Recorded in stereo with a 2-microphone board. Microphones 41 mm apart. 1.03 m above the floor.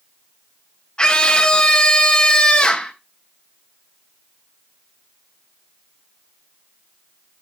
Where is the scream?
20° left (ahead or behind), 0.8 m.